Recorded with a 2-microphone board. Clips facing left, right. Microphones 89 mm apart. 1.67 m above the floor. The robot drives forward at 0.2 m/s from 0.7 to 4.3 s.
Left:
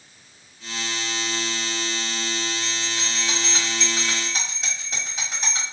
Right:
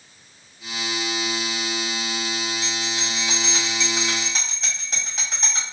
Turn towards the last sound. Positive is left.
turn(degrees=5)  # may be behind; listen again after turning